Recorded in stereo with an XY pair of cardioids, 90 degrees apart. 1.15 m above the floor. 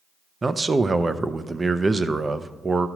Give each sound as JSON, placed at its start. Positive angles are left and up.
{"t": 0.4, "sound": "a man speaking", "azimuth_deg": -30, "distance_m": 0.6}